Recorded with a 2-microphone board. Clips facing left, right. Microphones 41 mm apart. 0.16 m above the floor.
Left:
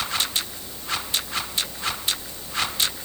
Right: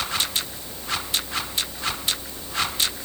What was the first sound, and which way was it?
Only background noise.